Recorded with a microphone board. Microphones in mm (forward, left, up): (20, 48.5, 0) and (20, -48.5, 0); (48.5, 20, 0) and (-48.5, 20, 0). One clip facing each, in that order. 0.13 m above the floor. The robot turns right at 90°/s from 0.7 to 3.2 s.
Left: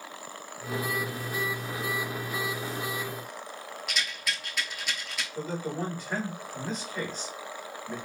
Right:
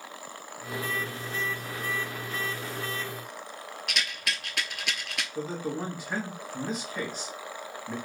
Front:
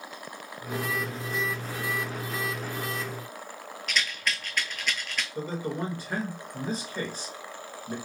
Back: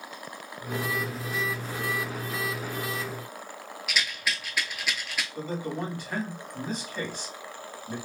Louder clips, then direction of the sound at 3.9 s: Right 1 dB, even; 100° right.